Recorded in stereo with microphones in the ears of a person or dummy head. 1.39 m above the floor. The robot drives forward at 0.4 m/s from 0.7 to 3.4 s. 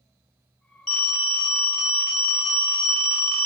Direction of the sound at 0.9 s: 5° left (ahead or behind).